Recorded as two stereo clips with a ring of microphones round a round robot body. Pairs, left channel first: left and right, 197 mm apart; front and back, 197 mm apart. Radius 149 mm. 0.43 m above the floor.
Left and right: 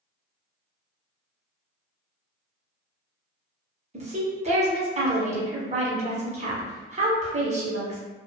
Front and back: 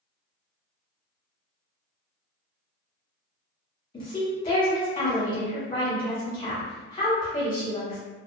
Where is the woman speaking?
60° right, 1.0 m.